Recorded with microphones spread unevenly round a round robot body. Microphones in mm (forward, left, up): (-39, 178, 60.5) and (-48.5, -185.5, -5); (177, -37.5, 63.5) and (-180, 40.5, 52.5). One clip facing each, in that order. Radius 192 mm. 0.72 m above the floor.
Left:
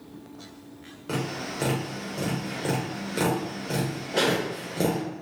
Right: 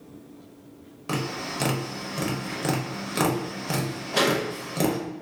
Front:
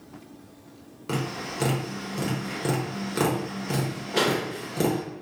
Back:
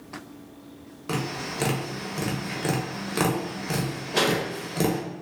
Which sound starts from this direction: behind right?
Tapping, at 1.1 s.